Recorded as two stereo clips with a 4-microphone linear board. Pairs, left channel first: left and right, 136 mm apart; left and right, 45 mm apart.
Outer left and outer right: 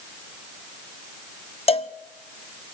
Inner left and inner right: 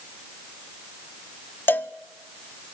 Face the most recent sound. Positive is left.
turn(degrees=45)  # may be behind; listen again after turning